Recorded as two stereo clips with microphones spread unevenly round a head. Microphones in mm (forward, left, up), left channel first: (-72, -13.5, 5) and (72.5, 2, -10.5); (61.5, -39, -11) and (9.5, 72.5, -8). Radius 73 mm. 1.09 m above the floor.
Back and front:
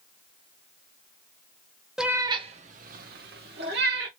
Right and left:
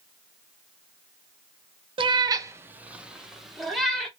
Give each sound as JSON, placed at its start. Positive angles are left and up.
{"t": 2.0, "sound": "a cat meowing", "azimuth_deg": 100, "distance_m": 0.5}